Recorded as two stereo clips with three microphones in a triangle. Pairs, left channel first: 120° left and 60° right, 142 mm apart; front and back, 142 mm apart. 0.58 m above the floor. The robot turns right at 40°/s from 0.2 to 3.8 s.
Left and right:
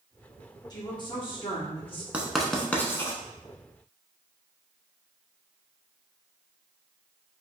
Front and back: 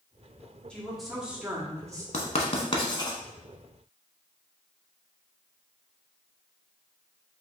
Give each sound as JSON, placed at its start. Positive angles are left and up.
{"t": 0.7, "sound": "a woman speaking", "azimuth_deg": 80, "distance_m": 1.1}
{"t": 2.1, "sound": "writing", "azimuth_deg": 20, "distance_m": 0.8}